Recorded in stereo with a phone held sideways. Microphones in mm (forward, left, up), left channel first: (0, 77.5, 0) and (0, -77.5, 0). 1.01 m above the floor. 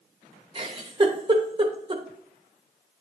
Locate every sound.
0.6 s a giggle: 30° right (ahead or behind), 0.9 m